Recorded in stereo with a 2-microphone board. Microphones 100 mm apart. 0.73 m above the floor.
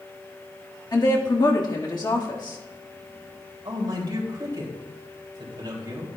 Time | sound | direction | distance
0.9 | a woman speaking | 40° left (ahead or behind) | 1.4 m
3.6 | a man speaking | 40° right (ahead or behind) | 2.5 m